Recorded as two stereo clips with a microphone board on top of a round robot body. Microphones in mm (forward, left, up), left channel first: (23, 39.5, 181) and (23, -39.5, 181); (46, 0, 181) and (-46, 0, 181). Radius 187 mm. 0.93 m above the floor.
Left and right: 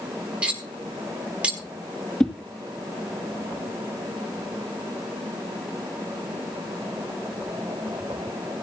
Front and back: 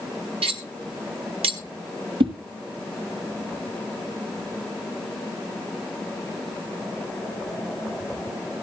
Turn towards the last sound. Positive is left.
turn(degrees=170)